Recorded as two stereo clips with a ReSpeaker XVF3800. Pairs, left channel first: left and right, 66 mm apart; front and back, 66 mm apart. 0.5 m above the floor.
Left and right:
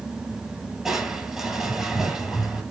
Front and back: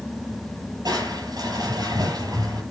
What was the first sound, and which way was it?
Crushing, 175° right.